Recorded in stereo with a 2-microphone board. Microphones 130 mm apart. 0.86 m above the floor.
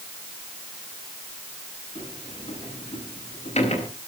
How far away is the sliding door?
About 9 m.